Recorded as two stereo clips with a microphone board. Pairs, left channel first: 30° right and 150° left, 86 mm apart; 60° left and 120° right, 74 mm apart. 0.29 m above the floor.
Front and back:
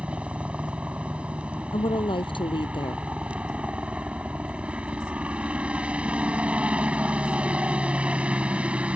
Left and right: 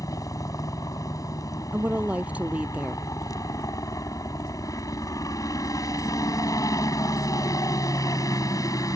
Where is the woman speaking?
50° right.